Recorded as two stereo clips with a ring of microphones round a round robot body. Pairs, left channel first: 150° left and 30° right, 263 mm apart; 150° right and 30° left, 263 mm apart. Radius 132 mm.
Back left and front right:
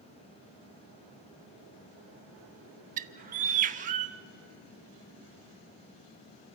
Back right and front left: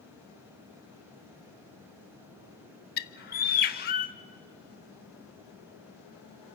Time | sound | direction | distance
3.0 | a bird | 90° right | 0.7 m